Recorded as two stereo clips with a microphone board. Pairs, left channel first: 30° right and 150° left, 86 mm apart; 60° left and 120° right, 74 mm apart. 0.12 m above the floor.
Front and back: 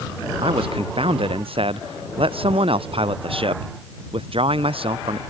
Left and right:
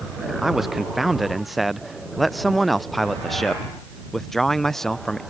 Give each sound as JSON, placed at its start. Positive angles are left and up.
{"t": 0.4, "sound": "a man speaking", "azimuth_deg": 155}